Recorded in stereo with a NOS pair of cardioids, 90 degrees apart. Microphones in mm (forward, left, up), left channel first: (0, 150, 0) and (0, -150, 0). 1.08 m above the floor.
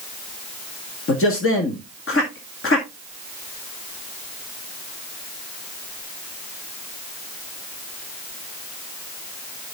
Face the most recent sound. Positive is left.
turn(degrees=45)